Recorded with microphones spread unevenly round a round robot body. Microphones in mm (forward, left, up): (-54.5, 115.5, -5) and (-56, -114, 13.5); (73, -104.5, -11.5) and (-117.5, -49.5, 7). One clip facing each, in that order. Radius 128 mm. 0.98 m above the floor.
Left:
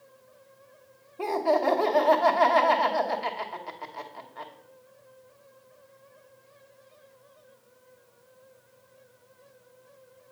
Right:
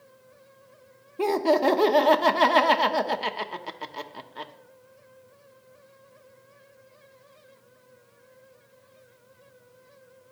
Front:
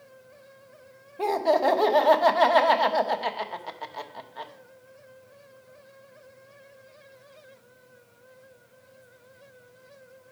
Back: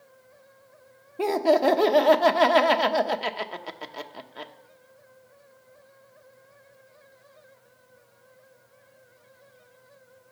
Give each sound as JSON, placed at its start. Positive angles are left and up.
{"t": 1.2, "sound": "laughter", "azimuth_deg": -135, "distance_m": 1.0}